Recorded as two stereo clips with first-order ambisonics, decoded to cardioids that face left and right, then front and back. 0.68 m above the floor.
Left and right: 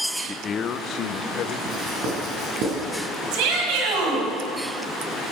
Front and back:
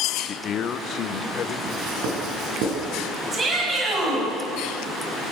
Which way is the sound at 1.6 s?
140° right.